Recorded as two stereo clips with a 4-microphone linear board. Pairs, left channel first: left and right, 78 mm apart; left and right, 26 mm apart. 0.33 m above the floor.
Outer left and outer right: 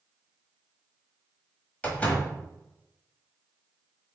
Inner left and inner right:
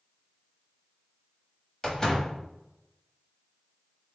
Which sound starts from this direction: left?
A door slam, at 1.8 s.